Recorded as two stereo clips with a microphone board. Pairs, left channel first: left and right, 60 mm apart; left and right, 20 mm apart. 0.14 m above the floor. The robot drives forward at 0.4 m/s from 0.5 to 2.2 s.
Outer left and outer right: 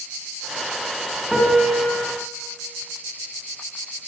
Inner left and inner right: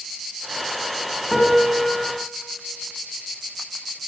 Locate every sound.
1.3 s a piano: 5° right (ahead or behind), 9 m